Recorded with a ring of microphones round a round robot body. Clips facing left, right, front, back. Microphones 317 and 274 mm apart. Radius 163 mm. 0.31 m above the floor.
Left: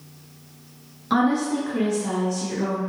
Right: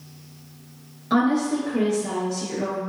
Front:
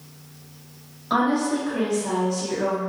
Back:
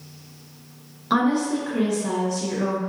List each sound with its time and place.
1.1 s a woman speaking: 155° left, 1.0 m